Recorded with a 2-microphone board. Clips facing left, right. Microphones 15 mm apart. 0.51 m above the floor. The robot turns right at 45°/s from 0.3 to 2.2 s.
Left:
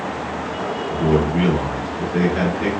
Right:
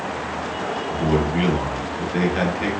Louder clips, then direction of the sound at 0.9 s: Left 3 dB; 10° right (ahead or behind).